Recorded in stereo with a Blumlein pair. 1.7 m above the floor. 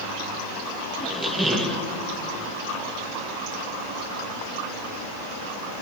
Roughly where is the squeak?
Ahead.